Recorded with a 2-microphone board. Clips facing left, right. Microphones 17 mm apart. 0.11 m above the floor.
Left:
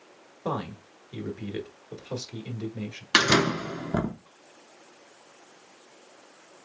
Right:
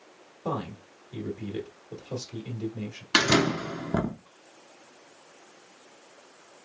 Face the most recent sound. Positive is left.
turn(degrees=15)  # may be behind; listen again after turning